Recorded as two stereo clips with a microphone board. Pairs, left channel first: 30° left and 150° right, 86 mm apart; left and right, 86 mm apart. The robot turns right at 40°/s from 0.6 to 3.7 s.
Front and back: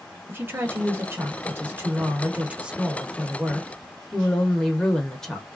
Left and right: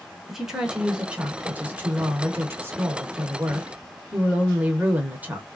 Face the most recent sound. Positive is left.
turn(degrees=-45)